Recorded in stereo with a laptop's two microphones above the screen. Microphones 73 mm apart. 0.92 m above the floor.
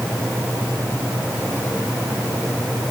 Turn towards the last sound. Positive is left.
No sound to turn to.